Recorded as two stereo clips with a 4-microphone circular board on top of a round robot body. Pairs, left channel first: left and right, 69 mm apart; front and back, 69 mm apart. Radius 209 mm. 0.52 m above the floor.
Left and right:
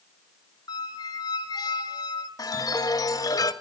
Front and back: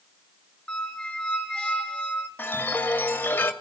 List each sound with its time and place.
0.7 s a squeak: 75° left, 2.0 m
2.4 s a chime: 65° left, 2.5 m